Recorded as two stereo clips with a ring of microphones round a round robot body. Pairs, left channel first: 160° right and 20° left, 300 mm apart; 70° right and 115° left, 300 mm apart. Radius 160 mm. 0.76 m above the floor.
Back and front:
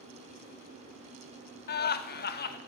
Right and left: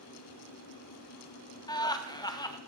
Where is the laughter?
135° right, 0.7 m.